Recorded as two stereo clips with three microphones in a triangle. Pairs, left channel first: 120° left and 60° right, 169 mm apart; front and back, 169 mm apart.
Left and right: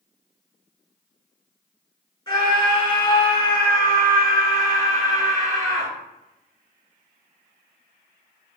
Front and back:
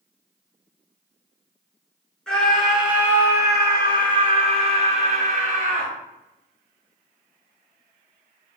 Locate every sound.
2.3 s a scream: 80° left, 1.7 m; by 5.9 s 175° right, 2 m